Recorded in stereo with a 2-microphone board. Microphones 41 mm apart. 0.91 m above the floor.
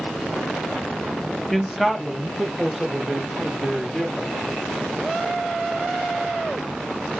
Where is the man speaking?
5° left (ahead or behind), 0.5 m; by 4.3 s 5° right (ahead or behind), 2 m.